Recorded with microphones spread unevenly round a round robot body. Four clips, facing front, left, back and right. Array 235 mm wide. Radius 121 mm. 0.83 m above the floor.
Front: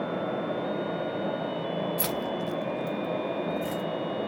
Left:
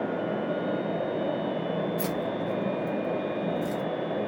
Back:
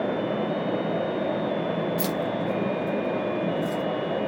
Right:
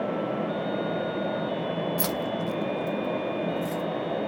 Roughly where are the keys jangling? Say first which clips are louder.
Right 1 dB, back 4 dB; right.